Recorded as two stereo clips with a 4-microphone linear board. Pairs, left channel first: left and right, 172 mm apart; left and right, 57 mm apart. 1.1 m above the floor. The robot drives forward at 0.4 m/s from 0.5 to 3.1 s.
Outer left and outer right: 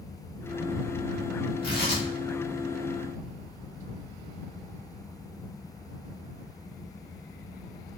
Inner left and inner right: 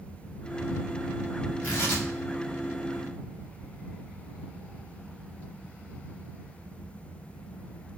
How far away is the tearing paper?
About 2.5 m.